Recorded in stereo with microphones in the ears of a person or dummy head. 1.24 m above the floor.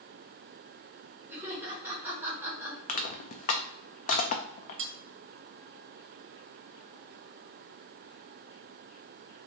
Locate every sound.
1.3 s laughter: 5° right (ahead or behind), 1.6 m
2.9 s crushing: 45° left (ahead or behind), 0.5 m
4.8 s cutlery clinking: 35° right (ahead or behind), 0.5 m